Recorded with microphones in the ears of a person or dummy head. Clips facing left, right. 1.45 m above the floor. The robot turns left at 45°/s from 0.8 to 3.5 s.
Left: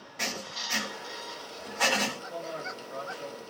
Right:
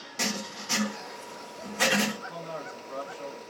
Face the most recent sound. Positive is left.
turn(degrees=-155)